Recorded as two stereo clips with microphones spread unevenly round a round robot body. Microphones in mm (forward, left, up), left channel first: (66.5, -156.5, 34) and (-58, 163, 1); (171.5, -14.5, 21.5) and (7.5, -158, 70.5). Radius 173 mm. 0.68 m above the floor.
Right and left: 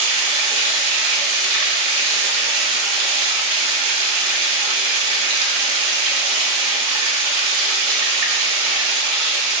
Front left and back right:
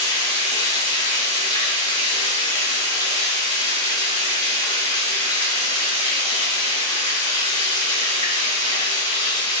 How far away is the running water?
About 0.7 m.